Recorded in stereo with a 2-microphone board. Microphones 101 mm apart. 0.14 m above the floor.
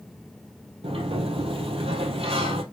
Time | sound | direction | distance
0.8 | a sliding door | 75° right (ahead or behind) | 1.5 m